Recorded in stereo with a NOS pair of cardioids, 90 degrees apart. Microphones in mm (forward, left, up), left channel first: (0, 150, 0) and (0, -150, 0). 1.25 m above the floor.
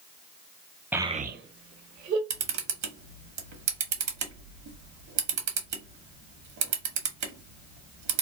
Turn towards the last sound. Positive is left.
turn(degrees=-60)